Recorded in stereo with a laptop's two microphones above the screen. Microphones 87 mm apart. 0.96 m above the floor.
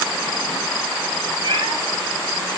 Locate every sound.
1.4 s a cat meowing: 65° right (ahead or behind), 9 m